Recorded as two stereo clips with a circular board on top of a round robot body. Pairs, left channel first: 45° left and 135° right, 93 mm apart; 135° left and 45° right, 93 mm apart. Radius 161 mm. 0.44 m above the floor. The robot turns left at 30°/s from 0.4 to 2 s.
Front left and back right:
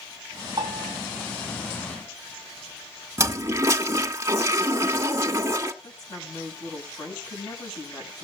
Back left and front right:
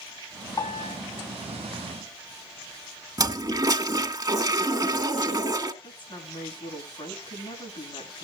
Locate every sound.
0.6 s a piano: straight behind, 3.5 m; by 1.0 s 170° left, 3.5 m
3.2 s a toilet flushing: 80° right, 2.0 m
5.8 s a woman speaking: 100° left, 7 m